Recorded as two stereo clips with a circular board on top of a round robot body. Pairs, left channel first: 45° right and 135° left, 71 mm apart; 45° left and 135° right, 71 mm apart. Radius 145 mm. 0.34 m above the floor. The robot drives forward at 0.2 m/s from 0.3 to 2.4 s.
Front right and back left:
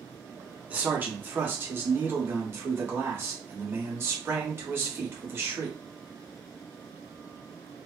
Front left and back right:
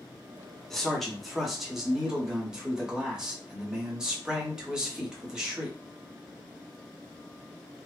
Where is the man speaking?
125° left, 1.1 m; by 5.8 s 150° left, 1.2 m.